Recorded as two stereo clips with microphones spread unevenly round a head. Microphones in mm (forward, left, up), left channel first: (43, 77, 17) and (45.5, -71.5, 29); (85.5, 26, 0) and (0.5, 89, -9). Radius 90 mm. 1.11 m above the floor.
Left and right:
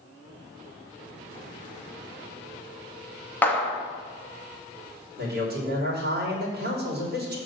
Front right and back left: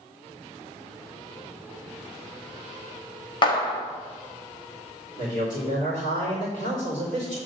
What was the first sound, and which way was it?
A clap, 10° left.